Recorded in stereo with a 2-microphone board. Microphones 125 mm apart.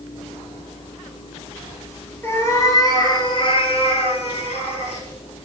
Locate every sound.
2.2 s a cat meowing: 20° left (ahead or behind), 1.5 m; by 5.0 s 55° left (ahead or behind), 1.6 m